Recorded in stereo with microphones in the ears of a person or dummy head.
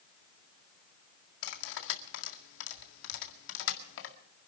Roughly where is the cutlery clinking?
Left.